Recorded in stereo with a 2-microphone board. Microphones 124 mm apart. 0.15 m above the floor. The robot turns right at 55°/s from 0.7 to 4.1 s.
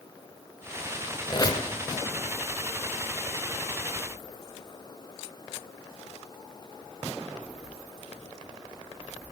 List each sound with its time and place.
1.3 s a squeak: 35° left (ahead or behind), 1.4 m; by 1.7 s 20° left (ahead or behind), 1.4 m